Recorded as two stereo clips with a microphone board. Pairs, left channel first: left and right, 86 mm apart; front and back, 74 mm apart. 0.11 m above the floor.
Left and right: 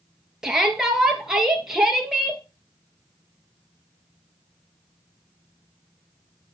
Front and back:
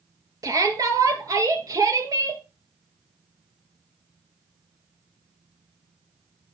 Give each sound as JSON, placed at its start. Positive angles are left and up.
{"t": 0.4, "sound": "a shout", "azimuth_deg": -170, "distance_m": 2.0}